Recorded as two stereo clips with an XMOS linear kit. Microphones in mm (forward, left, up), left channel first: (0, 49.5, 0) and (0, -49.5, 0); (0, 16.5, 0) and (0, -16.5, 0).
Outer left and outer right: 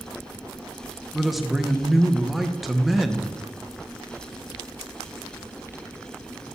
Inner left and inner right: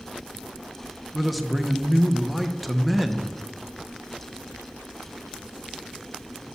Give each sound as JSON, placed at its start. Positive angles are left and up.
{"t": 1.1, "sound": "a man speaking", "side_deg": 0, "distance_m": 0.6}